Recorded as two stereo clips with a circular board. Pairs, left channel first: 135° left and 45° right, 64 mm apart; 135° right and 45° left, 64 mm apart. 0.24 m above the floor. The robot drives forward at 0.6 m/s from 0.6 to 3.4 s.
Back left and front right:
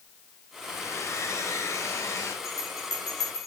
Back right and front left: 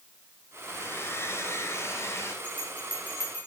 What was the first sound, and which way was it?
A hair dryer, 175° left.